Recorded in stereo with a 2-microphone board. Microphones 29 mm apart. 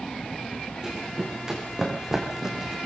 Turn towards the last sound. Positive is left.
turn(degrees=-15)  # may be behind; listen again after turning